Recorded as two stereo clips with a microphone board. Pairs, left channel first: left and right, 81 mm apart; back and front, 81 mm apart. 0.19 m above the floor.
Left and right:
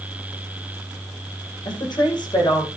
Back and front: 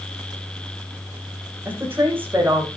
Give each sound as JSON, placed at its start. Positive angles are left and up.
{"t": 1.6, "sound": "a woman speaking", "azimuth_deg": 65, "distance_m": 7.5}